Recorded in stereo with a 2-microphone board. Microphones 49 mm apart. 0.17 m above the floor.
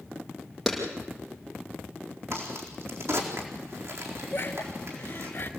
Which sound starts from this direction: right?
A crack, at 2.3 s.